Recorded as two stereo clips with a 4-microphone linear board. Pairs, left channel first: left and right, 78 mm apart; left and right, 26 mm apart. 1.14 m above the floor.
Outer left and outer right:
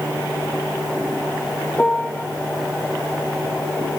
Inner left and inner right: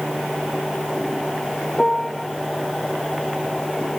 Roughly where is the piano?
Left.